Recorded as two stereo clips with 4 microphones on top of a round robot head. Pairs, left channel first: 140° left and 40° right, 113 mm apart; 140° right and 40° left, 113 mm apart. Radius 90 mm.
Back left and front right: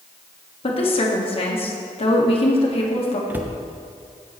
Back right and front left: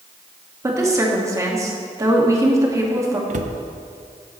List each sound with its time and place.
0.6 s a woman speaking: 105° left, 1.9 m
3.3 s a cupboard door: 35° left, 0.7 m